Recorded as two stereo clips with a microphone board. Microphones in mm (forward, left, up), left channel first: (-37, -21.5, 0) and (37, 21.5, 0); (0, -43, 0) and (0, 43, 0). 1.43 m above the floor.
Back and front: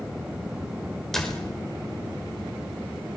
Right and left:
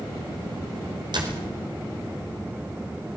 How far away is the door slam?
About 5 m.